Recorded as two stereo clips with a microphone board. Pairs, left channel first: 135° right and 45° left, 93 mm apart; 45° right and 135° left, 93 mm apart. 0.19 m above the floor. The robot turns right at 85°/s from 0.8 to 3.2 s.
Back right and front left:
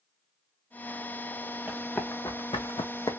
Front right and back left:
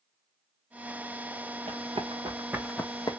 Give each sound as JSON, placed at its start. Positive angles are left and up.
{"t": 1.7, "sound": "running footsteps", "azimuth_deg": 120, "distance_m": 1.2}